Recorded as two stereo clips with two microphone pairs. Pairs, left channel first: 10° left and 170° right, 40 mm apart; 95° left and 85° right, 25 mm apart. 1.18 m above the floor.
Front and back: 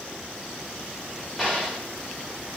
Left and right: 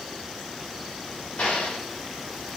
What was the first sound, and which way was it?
An explosion, 105° left.